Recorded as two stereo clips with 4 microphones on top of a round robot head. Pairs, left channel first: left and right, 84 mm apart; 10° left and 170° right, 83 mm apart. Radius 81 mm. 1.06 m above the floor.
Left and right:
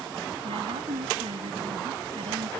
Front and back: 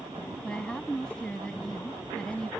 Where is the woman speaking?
70° right.